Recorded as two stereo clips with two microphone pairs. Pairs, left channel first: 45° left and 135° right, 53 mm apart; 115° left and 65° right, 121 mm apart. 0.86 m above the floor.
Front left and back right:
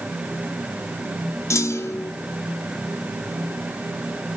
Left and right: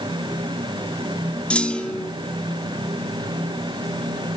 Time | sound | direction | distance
1.5 | a clunk | 30° left | 1.8 m